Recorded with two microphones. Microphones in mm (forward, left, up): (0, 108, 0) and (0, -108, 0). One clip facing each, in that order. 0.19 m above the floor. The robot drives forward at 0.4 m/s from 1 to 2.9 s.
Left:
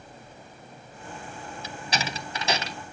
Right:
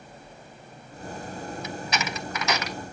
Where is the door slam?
35° left (ahead or behind), 0.9 m; by 2.9 s 25° left (ahead or behind), 1.1 m.